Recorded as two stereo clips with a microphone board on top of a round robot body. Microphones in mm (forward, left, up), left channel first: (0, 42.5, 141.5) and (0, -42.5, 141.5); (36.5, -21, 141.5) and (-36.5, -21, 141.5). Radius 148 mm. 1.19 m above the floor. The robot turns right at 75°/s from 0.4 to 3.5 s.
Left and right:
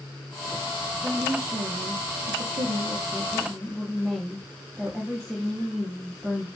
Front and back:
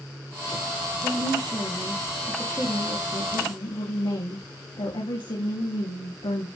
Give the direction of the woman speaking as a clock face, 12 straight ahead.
6 o'clock.